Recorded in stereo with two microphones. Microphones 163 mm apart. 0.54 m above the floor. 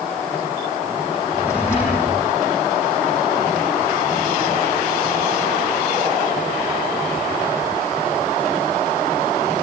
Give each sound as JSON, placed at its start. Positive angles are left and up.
{"t": 1.3, "sound": "a drawer", "side_deg": 15, "distance_m": 8.5}